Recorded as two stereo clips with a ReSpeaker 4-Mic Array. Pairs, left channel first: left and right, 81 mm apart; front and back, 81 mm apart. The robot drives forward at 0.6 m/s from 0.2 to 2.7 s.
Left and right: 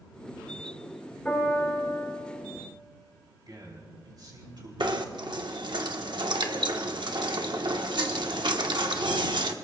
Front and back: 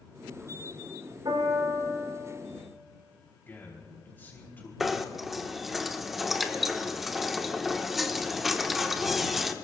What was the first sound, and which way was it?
A piano, 165° left.